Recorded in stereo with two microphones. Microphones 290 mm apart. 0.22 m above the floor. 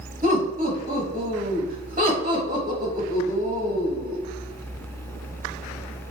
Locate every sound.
0.2 s laughter: 30° right (ahead or behind), 1.1 m